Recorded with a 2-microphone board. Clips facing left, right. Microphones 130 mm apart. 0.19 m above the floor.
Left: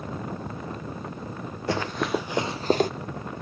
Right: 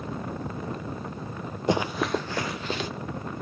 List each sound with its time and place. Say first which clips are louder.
1.7 s running footsteps: right 1 dB; 20° right (ahead or behind), 1.5 m; by 2.9 s 50° left (ahead or behind), 1.5 m